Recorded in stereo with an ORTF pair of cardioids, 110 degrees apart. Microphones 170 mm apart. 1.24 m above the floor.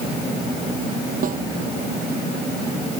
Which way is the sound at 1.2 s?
55° right.